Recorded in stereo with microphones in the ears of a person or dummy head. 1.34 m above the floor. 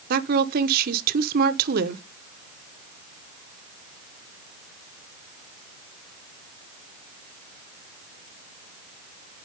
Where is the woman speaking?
55° right (ahead or behind), 0.9 m.